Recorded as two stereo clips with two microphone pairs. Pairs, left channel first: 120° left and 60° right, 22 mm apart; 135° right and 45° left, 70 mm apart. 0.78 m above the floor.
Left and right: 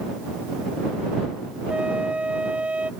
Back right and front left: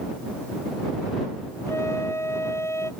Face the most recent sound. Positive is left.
turn(degrees=-80)